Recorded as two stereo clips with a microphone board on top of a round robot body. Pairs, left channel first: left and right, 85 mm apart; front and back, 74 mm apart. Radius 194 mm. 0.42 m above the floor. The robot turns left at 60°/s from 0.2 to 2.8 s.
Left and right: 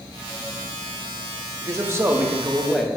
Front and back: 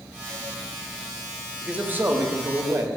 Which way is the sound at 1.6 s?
110° right.